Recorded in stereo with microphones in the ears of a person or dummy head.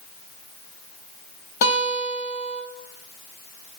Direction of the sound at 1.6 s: 55° left (ahead or behind).